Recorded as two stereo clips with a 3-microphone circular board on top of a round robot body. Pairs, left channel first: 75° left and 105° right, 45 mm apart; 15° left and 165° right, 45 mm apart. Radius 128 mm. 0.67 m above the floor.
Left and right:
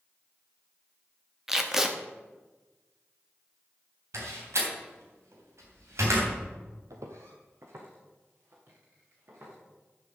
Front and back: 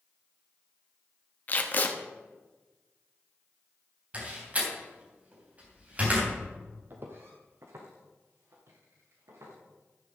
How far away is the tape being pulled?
About 1.5 m.